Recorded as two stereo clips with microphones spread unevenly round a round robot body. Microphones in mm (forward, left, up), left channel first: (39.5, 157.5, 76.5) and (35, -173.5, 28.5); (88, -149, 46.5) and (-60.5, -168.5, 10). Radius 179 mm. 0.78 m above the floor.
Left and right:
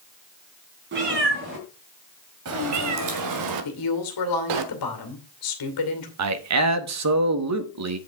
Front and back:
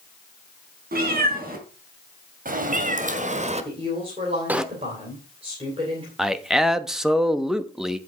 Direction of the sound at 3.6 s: 120° left.